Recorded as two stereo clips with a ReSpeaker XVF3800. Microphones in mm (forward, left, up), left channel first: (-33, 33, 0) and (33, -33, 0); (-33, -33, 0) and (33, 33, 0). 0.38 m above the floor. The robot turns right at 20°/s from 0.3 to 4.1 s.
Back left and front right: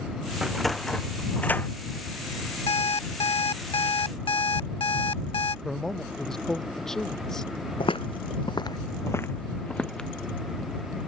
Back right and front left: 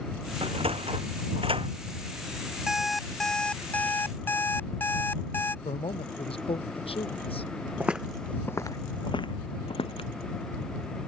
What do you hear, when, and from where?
0.4 s a sliding door: 40° left; by 1.7 s 65° left
2.7 s an alarm clock: 130° left; by 5.5 s 160° left
5.7 s a man speaking: 140° right
7.8 s footsteps: 120° left; by 10.1 s 145° right